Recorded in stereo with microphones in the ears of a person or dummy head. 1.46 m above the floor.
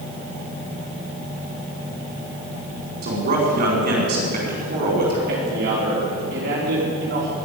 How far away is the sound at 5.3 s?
About 4.5 m.